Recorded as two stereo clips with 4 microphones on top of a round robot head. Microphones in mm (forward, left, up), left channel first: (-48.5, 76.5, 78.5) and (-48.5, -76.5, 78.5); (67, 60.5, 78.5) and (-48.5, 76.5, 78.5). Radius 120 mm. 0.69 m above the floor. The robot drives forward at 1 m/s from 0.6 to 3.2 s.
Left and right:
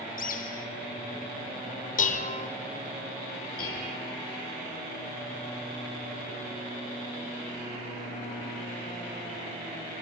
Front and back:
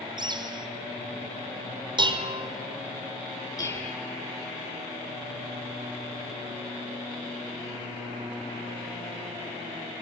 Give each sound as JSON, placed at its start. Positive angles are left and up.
{"t": 0.2, "sound": "a bird", "azimuth_deg": 120, "distance_m": 1.8}
{"t": 2.0, "sound": "dishes clattering", "azimuth_deg": 125, "distance_m": 1.9}
{"t": 3.6, "sound": "dishes clattering", "azimuth_deg": 50, "distance_m": 9.5}